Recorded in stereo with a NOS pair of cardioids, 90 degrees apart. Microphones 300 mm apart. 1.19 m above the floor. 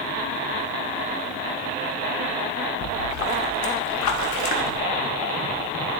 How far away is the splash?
About 1.3 m.